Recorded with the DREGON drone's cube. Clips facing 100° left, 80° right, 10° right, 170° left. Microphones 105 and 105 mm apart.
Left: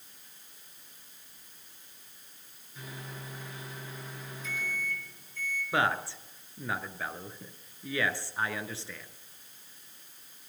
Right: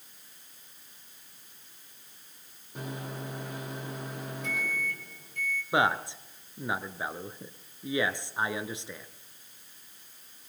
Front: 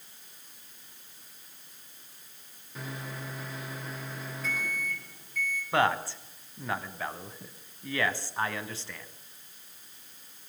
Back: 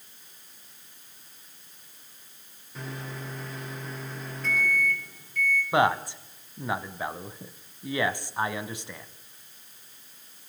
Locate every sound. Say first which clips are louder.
2.8 s a microwave: right 6 dB, back 2 dB; 95° right, 3.5 m
5.7 s a man speaking: right 2 dB, back 2 dB; 130° right, 1.2 m